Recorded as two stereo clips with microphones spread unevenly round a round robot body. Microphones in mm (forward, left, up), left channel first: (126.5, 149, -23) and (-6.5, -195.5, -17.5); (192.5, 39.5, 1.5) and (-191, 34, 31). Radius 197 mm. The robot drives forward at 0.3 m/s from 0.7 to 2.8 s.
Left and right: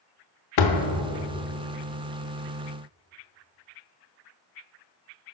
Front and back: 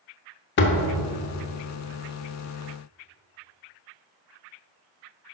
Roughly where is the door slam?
Ahead left.